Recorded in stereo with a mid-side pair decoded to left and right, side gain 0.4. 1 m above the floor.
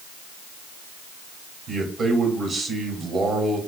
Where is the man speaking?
55° right, 2.5 m.